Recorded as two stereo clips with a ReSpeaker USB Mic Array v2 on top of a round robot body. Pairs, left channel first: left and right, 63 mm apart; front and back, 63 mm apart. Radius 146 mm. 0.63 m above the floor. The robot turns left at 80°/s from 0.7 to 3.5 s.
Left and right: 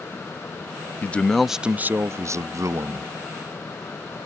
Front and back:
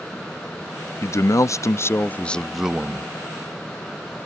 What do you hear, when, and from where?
1.0 s a man speaking: 35° left; by 3.1 s 135° right